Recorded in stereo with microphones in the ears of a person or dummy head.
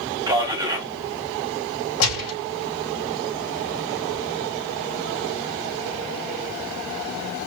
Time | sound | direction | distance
0.3 | a man speaking | 20° right (ahead or behind) | 1.4 m
2.0 | a gunshot | 80° left | 4 m